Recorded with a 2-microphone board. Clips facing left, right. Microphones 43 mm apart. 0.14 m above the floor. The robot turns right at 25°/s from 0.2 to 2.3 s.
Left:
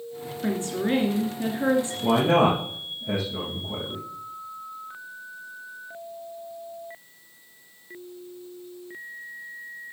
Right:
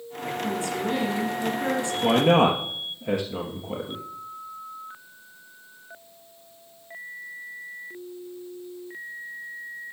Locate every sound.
0.4 s a woman speaking: 105° left, 2 m; by 1.9 s 140° left, 2 m
2.0 s a man speaking: 60° right (ahead or behind), 2.5 m